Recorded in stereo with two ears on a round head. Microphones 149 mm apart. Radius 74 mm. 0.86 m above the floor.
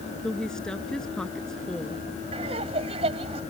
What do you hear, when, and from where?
0.2 s a woman speaking: 5° left (ahead or behind)
2.3 s laughter: 35° right (ahead or behind)